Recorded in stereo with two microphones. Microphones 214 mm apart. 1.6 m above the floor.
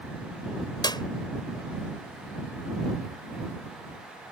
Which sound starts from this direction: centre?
A clap, at 0.8 s.